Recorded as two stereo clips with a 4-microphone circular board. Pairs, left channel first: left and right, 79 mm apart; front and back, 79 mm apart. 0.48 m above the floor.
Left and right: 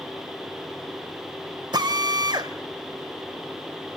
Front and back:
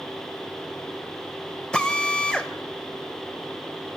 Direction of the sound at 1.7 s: 75° right.